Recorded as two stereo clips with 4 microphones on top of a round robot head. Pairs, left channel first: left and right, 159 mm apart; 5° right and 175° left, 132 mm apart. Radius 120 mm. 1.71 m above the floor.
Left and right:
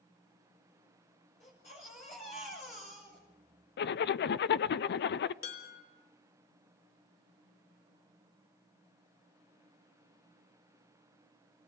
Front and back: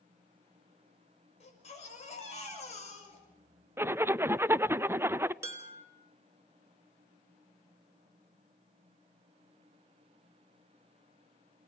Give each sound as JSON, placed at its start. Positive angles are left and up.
{"t": 1.4, "sound": "a baby crying", "azimuth_deg": 30, "distance_m": 6.0}
{"t": 3.8, "sound": "a zipper", "azimuth_deg": 100, "distance_m": 0.5}
{"t": 5.4, "sound": "dishes clattering", "azimuth_deg": 105, "distance_m": 5.0}